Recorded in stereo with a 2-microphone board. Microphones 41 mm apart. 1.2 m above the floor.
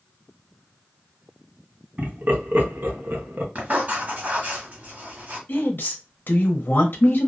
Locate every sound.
2.0 s laughter: 45° right (ahead or behind), 1.0 m; by 3.5 s 50° right (ahead or behind), 0.8 m
3.5 s writing: 45° right (ahead or behind), 1.1 m
5.5 s a woman speaking: 55° left (ahead or behind), 0.7 m